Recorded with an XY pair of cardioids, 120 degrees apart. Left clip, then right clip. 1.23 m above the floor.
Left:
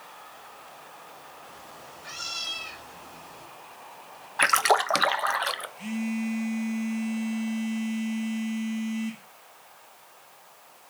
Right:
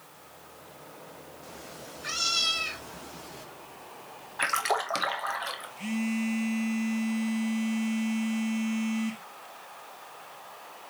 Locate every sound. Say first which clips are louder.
1.4 s a cat meowing: right 1 dB; 55° right, 1.5 m
4.4 s a splash: left 6 dB; 40° left, 0.6 m
5.8 s a phone buzzing: right 1 dB; 10° right, 1.1 m